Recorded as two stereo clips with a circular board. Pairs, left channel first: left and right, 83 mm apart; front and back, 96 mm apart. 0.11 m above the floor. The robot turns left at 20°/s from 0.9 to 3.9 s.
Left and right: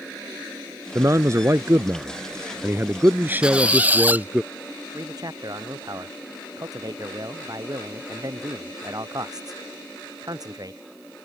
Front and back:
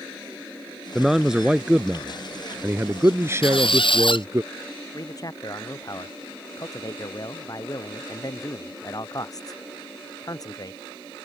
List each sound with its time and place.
0.9 s a man speaking: 95° right; by 4.4 s 150° right
3.4 s a squeak: 15° right; by 4.3 s 20° right
4.9 s a man speaking: 50° right